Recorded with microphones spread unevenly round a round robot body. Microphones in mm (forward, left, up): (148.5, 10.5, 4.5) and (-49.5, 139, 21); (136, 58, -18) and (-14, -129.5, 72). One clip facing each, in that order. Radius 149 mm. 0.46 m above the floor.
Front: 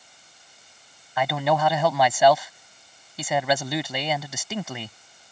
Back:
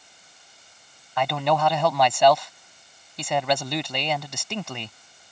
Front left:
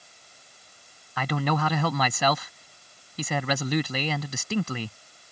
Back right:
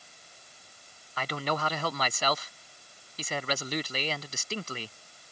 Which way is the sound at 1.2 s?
50° left.